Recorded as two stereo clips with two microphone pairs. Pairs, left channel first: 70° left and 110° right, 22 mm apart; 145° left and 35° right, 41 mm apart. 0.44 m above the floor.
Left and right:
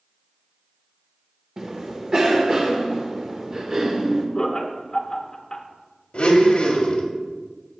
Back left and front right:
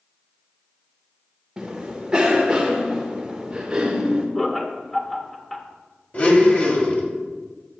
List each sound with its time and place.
1.6 s a cough: 95° right, 0.9 m
4.3 s laughter: 75° left, 0.8 m
6.1 s a blender: 100° left, 1.6 m